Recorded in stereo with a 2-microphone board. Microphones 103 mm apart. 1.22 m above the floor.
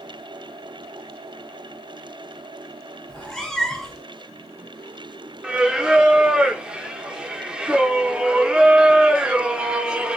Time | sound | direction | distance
3.1 | a cat meowing | 5° left (ahead or behind) | 0.7 m
5.4 | singing | 10° right (ahead or behind) | 0.5 m